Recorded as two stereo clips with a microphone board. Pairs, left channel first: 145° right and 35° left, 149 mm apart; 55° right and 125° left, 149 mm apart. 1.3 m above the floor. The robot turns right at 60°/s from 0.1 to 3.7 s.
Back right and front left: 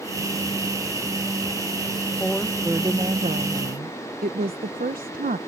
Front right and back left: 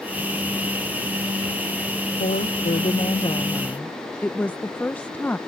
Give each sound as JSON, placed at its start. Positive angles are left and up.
{"t": 2.2, "sound": "a woman speaking", "azimuth_deg": -70}